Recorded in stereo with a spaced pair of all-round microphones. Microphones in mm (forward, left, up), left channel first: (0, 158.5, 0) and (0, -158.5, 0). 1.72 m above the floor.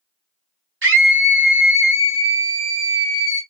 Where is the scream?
40° right (ahead or behind), 0.5 m.